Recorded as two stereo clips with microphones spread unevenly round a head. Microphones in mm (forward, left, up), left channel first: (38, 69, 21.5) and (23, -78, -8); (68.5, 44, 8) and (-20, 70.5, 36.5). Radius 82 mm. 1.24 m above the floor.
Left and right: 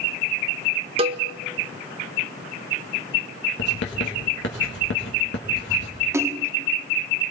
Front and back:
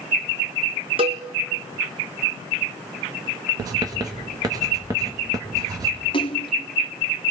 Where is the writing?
110° left, 2 m.